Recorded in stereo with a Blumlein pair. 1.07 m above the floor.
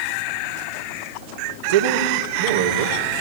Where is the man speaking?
60° right, 3 m.